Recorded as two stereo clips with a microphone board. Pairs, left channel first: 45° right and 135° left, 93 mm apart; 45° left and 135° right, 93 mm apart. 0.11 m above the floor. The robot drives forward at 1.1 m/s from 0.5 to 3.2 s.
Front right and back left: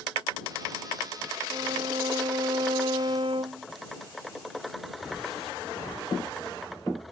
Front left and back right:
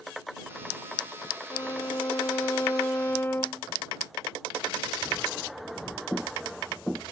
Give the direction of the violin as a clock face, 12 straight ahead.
9 o'clock.